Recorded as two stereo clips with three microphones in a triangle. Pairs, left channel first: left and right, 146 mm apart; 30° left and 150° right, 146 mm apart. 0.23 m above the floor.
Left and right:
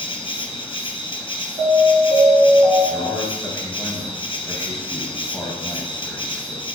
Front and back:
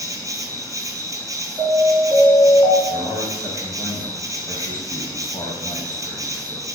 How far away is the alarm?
About 2.5 m.